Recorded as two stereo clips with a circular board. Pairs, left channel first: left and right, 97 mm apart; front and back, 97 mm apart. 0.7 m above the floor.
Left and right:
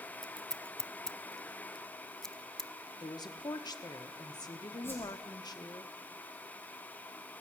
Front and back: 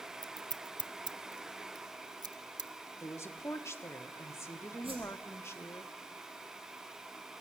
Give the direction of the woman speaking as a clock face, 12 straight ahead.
10 o'clock.